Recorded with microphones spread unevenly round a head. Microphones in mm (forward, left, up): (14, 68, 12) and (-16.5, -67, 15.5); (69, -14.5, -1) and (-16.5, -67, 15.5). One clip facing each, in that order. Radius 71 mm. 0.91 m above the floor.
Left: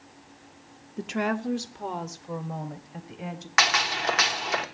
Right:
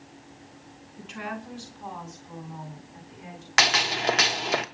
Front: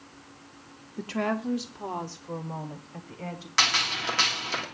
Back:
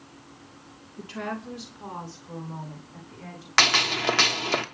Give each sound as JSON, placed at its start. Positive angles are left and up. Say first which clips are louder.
{"t": 1.0, "sound": "a woman speaking", "louder": "left 8 dB, front 5 dB", "azimuth_deg": 75, "distance_m": 1.3}
{"t": 3.6, "sound": "a gunshot", "louder": "even, back 5 dB", "azimuth_deg": -150, "distance_m": 1.3}